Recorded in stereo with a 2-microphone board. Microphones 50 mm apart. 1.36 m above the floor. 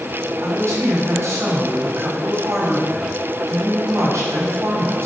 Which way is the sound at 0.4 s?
90° right.